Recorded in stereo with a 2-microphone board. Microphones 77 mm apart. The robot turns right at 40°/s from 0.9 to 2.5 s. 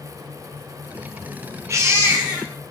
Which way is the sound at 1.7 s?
45° right.